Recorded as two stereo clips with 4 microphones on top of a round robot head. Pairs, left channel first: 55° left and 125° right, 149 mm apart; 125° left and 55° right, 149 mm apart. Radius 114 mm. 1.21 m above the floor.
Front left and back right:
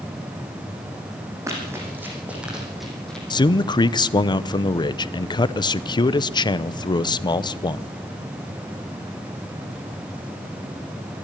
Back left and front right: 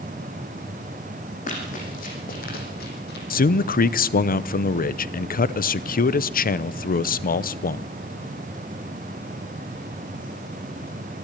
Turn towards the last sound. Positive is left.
turn(degrees=115)